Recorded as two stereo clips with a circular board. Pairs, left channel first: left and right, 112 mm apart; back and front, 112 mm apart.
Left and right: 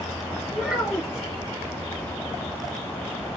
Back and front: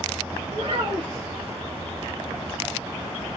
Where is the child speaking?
5° right, 1.1 m.